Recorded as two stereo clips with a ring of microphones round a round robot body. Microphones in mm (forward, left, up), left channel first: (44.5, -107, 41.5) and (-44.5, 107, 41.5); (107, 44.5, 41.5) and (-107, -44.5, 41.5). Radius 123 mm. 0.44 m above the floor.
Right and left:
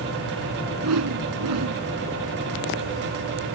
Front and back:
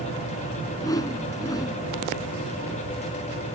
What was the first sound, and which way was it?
A whoosh, 100° left.